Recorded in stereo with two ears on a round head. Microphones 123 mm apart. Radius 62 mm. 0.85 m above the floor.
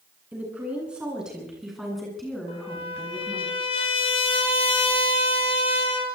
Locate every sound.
0.3 s a woman speaking: 10° right (ahead or behind), 10 m; by 3.5 s 10° left (ahead or behind), 8 m
2.5 s a trumpet: 40° left (ahead or behind), 5 m